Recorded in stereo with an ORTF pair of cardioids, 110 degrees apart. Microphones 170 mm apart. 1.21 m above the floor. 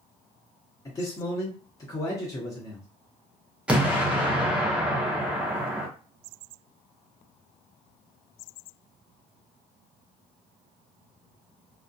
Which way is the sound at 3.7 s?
5° right.